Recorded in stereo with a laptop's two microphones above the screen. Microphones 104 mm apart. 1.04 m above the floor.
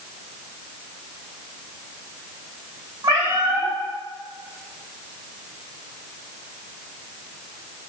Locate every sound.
3.0 s a cat meowing: 45° right (ahead or behind), 0.9 m